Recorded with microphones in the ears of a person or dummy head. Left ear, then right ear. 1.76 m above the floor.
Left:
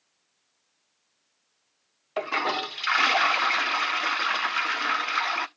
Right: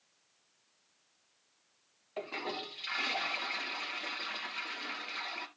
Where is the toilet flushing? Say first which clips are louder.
Left 12 dB; 45° left (ahead or behind), 0.5 m.